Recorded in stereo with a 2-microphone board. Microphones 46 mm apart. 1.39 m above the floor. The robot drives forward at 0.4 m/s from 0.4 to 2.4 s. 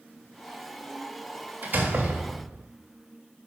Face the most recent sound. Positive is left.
turn(degrees=-35)  # may be behind; listen again after turning